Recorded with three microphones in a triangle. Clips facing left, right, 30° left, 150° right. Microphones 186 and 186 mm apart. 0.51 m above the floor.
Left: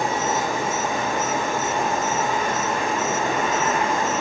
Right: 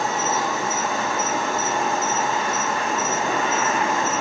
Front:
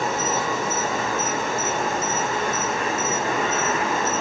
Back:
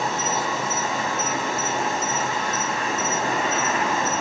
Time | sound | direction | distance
0.0 | an insect | 20° left | 1.1 m